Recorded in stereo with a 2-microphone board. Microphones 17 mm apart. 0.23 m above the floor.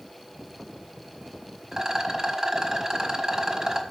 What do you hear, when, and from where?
1.7 s a rattle: 25° right (ahead or behind), 1.5 m